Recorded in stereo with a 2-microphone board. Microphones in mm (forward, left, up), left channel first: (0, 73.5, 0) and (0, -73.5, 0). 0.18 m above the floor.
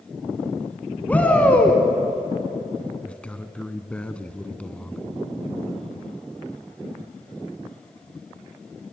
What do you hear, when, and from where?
1.1 s a shout: 10° left (ahead or behind), 1.5 m
3.0 s a man speaking: 10° left (ahead or behind), 1.4 m